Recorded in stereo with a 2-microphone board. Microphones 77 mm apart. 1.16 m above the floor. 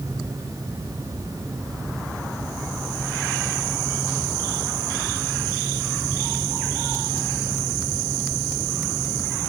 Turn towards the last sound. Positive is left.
No sound to turn to.